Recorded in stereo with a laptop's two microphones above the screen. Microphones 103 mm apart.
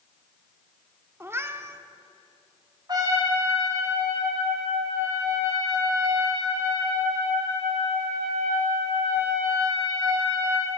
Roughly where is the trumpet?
Right.